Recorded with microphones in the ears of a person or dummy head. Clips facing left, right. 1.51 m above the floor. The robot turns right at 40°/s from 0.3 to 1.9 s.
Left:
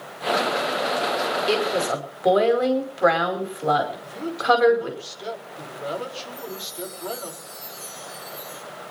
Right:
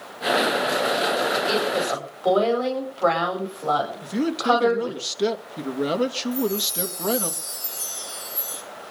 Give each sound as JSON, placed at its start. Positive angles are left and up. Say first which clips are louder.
{"t": 1.5, "sound": "a woman speaking", "louder": "left 1 dB", "side_deg": 40, "distance_m": 5.0}
{"t": 4.0, "sound": "a man speaking", "louder": "right 3 dB", "side_deg": -70, "distance_m": 2.5}
{"t": 6.3, "sound": "a chime", "louder": "right 10 dB", "side_deg": -80, "distance_m": 6.0}